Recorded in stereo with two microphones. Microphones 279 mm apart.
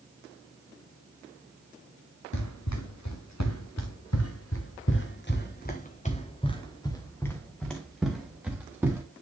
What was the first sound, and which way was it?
Running footsteps, 80° left.